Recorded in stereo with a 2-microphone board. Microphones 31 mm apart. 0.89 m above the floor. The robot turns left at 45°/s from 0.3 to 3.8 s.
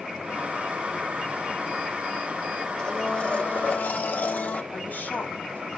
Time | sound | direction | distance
2.8 | a blender | 160° left | 1.2 m
4.7 | a woman speaking | 85° left | 7.5 m